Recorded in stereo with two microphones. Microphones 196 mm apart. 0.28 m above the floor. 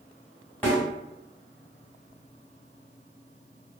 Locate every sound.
0.6 s a snare drum: 10° left (ahead or behind), 1.9 m